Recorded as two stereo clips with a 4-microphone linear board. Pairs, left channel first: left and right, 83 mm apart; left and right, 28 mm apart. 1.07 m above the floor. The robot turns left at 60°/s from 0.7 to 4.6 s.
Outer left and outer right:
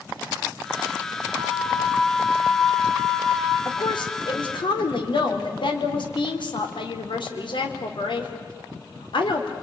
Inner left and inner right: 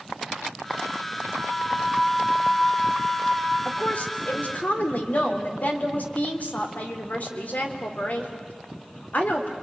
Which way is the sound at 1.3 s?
105° right.